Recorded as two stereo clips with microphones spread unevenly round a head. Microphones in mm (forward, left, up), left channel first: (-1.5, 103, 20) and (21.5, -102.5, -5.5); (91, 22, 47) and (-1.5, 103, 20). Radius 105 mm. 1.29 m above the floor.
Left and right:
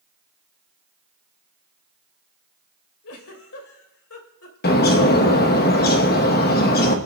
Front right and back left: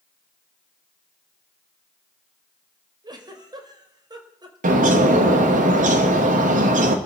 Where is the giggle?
80° left, 3 m.